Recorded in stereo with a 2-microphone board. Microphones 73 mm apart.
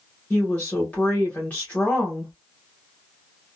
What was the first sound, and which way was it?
A woman speaking, 20° left (ahead or behind).